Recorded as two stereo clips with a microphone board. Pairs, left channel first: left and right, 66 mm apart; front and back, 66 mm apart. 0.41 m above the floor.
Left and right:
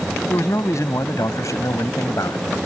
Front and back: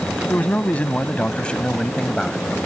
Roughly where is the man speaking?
Ahead left.